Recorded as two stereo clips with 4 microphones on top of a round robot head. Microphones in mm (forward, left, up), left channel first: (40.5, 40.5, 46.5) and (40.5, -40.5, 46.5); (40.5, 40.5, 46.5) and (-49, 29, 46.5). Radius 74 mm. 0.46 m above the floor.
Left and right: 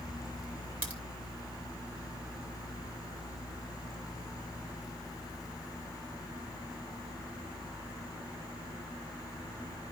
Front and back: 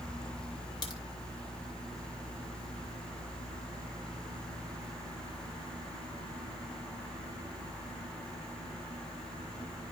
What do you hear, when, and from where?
0.8 s a crack: 20° right, 2.5 m